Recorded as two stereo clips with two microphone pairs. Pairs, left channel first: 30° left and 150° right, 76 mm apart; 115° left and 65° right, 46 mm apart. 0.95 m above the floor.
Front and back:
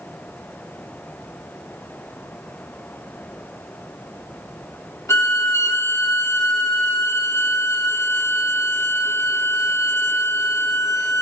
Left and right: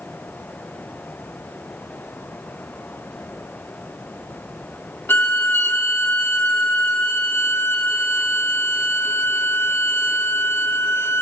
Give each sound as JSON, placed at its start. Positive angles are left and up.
{"t": 5.1, "sound": "a violin", "azimuth_deg": 80, "distance_m": 3.0}